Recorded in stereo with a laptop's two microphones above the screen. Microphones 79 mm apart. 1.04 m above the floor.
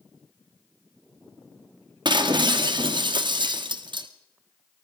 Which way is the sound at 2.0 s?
65° right (ahead or behind).